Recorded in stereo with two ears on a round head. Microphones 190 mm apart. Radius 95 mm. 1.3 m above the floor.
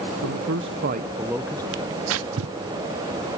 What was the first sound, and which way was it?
A man speaking, 75° right (ahead or behind).